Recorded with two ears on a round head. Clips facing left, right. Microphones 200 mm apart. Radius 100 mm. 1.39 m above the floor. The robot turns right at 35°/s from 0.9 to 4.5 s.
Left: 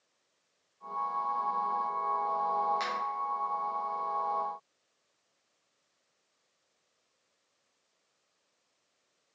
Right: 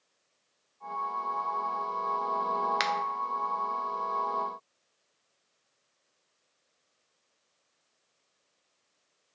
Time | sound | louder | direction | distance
2.8 | a finger snap | right 5 dB | 80° right | 0.6 m